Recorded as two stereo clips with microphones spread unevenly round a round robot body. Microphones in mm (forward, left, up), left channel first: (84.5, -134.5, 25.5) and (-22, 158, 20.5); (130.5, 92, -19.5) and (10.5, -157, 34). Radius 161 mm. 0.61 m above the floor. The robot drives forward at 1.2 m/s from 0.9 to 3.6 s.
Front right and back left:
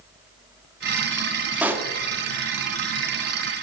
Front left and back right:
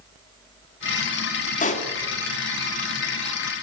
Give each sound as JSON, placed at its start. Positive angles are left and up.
{"t": 1.6, "sound": "a pop", "azimuth_deg": 25, "distance_m": 1.5}